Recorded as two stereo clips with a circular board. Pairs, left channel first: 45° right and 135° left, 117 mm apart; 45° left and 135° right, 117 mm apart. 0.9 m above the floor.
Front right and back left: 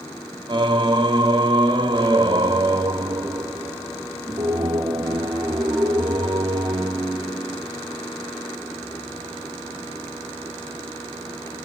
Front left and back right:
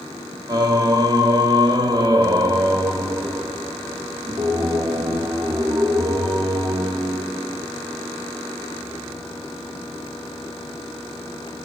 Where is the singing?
175° left, 0.5 m.